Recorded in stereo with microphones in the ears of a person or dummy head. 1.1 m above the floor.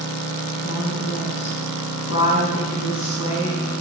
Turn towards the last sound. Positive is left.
turn(degrees=60)  # may be behind; listen again after turning